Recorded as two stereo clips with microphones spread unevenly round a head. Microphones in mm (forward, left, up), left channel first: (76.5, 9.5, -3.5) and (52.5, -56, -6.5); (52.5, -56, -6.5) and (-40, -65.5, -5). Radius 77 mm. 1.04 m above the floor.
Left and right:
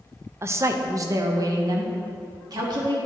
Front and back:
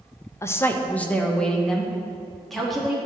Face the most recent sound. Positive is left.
turn(degrees=-85)